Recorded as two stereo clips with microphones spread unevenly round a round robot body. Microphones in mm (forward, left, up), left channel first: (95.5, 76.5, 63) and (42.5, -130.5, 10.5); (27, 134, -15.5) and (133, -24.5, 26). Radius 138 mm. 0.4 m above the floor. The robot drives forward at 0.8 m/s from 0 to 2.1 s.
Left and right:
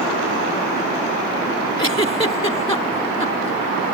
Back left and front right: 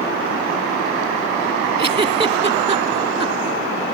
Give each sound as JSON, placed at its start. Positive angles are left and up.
{"t": 1.8, "sound": "a giggle", "azimuth_deg": 5}